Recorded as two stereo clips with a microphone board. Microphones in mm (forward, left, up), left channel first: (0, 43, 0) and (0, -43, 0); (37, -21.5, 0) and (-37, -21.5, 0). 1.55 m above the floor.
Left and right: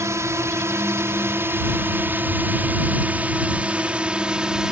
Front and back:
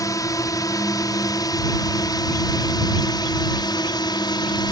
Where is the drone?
35° right; by 4.7 s 10° right.